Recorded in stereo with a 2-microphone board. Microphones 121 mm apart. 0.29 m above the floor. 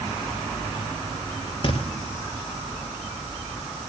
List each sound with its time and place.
1.6 s a thud: 45° left (ahead or behind), 2 m